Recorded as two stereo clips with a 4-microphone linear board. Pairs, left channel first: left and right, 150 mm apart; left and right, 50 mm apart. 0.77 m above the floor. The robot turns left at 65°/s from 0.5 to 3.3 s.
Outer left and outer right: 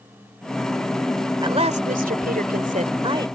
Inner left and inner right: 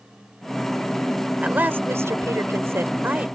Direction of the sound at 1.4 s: 35° right.